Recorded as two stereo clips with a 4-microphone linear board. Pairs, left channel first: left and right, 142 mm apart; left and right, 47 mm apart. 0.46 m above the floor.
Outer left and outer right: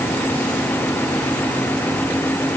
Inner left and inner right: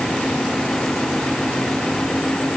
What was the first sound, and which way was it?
Only background noise.